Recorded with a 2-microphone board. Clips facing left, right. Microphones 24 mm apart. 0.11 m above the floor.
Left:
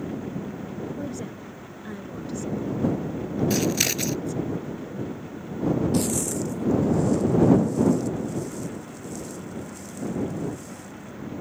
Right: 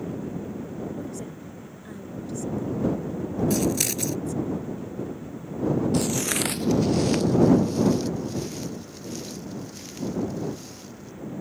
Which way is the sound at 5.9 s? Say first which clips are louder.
Even; centre (ahead or behind).